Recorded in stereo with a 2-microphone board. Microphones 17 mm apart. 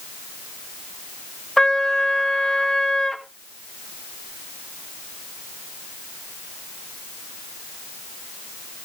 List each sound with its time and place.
1.6 s a trumpet: 30° left (ahead or behind), 1.9 m